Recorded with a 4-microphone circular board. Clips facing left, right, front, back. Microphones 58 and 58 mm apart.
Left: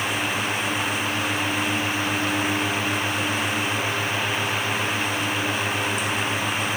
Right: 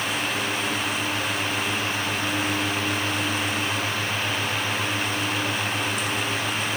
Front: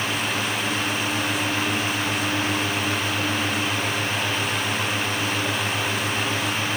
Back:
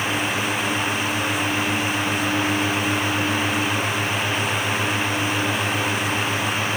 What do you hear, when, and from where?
Only background noise.